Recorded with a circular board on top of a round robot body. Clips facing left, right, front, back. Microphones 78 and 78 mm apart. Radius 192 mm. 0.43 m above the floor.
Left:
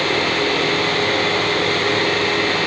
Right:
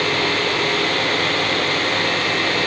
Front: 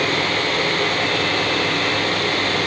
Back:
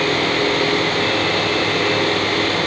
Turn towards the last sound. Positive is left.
No sound to turn to.